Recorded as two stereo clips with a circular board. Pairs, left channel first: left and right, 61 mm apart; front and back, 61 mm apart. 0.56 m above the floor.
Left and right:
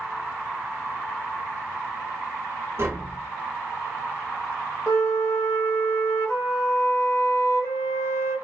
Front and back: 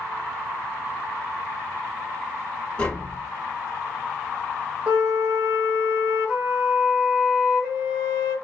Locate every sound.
2.8 s tapping: 70° right, 1.5 m
4.9 s a flute: 120° left, 1.6 m